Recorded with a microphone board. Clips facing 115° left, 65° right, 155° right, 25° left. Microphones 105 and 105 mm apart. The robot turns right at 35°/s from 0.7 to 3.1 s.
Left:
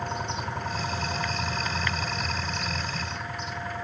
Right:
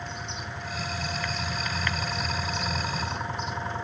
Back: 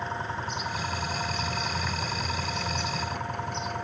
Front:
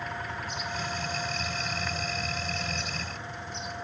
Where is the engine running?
145° left; by 3.8 s 130° right.